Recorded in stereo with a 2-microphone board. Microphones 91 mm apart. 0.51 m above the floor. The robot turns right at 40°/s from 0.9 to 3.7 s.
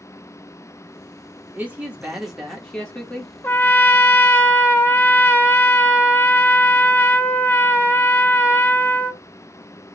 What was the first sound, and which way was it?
A man speaking, 35° right.